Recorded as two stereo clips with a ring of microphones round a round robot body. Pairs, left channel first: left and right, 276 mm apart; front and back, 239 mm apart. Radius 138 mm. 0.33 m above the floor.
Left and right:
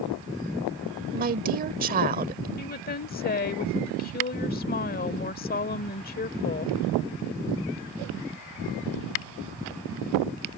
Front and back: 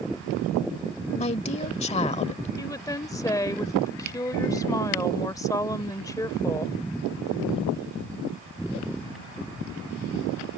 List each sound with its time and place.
1.1 s a woman speaking: 50° right
2.6 s a woman speaking: 65° left